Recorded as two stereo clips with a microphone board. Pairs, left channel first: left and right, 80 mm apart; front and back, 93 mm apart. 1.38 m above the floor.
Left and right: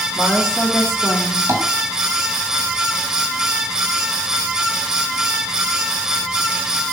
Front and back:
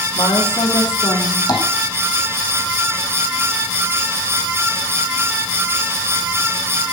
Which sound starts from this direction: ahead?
A woman speaking, at 0.1 s.